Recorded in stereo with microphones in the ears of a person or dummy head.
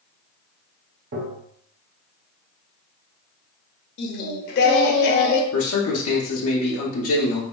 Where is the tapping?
60° right (ahead or behind), 0.8 m.